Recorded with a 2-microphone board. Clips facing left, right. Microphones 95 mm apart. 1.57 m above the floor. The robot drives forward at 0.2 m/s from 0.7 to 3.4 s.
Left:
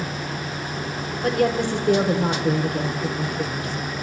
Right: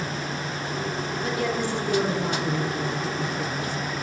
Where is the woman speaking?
60° left (ahead or behind), 0.9 m; by 3.8 s 55° left (ahead or behind), 0.9 m.